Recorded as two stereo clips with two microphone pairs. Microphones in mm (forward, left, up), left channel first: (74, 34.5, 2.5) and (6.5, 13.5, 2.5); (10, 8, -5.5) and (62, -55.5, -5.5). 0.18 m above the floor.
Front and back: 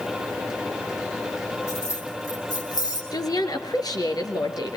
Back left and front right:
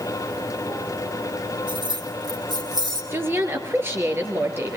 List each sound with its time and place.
1.7 s keys jangling: 25° right, 3.5 m; by 3.0 s 15° right, 4 m
3.1 s a woman speaking: 5° left, 3.5 m